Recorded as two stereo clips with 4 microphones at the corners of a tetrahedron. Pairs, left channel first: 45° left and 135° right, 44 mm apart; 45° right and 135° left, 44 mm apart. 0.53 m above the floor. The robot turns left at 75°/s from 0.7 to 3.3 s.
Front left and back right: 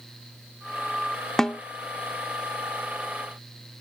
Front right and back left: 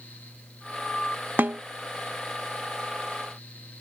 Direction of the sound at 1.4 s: 120° left.